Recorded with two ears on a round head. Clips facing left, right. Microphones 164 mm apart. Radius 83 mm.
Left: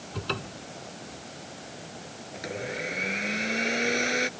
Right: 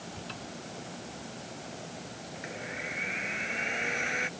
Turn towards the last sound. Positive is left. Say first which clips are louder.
# left 8 dB
turn(degrees=50)  # may be behind; listen again after turning